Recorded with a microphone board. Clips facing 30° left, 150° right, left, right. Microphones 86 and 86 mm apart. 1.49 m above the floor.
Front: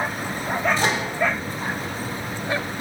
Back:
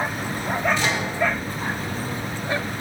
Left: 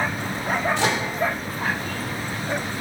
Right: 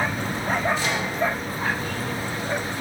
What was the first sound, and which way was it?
A microwave, 80° left.